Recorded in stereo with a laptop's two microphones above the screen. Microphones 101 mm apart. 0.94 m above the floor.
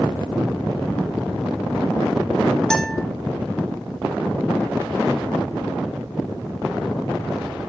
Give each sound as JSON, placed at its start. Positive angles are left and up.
{"t": 2.7, "sound": "a guitar", "side_deg": 5, "distance_m": 2.0}